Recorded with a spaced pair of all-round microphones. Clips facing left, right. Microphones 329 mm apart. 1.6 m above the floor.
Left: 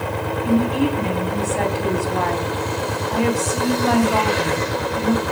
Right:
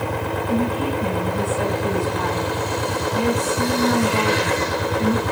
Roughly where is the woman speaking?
Left.